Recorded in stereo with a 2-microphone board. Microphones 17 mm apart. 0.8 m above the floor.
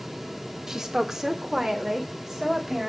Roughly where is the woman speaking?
Right.